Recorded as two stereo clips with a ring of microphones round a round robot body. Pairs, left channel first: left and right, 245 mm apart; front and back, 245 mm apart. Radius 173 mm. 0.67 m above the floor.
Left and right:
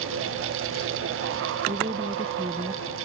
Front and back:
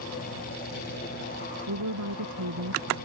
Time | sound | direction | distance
1.7 | a woman speaking | 165° right | ?